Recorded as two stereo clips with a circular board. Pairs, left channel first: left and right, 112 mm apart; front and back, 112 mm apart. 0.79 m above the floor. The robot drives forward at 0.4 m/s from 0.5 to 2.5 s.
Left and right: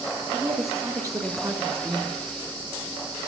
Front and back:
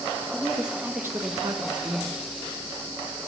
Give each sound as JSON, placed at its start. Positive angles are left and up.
{"t": 0.3, "sound": "a woman speaking", "azimuth_deg": -95, "distance_m": 0.6}